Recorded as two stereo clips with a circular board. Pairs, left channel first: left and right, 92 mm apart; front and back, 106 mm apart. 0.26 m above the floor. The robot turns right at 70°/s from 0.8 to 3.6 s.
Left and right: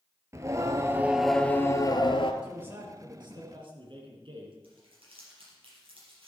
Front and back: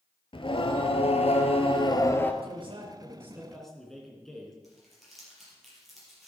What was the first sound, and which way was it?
Singing, 35° right.